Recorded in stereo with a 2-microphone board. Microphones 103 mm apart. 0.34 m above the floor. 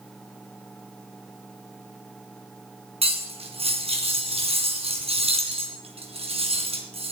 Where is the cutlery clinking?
70° right (ahead or behind), 2.5 m.